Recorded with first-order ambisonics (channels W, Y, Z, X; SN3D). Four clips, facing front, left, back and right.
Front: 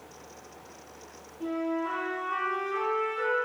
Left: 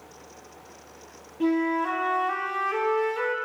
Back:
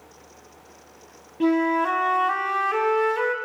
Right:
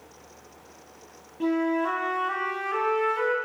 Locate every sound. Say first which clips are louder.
1.4 s a flute: left 1 dB, back 10 dB; 175° left, 1.0 m